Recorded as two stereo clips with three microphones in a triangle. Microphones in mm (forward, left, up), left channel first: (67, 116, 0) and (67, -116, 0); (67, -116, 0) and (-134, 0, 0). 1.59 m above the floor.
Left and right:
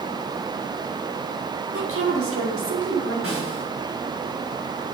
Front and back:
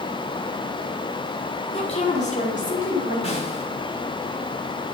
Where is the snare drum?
90° right, 4.5 m.